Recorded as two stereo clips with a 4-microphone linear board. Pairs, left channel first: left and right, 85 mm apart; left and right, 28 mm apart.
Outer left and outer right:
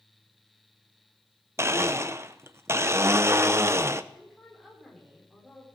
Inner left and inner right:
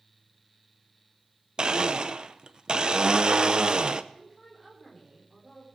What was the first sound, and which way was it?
A blender, 30° right (ahead or behind).